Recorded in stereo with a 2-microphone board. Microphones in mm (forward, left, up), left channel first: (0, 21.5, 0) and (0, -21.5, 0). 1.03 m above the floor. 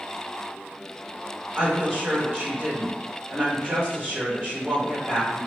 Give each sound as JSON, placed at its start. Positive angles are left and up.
{"t": 1.6, "sound": "a woman speaking", "side_deg": -25, "distance_m": 1.3}